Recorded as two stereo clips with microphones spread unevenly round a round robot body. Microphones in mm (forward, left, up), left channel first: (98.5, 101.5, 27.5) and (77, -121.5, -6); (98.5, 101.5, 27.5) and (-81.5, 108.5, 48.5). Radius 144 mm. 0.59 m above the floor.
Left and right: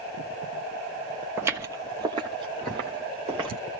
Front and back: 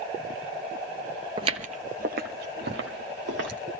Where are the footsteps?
175° left, 0.6 m; by 3.6 s 170° right, 1.6 m.